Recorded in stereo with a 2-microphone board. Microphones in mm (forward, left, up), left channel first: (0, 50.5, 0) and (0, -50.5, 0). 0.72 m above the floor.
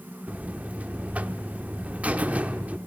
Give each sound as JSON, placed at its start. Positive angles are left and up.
{"t": 0.3, "sound": "a buzzer", "side_deg": -15, "distance_m": 0.5}